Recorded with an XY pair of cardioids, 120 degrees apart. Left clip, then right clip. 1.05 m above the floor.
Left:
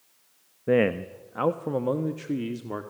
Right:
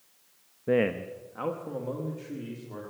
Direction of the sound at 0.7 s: 15° left.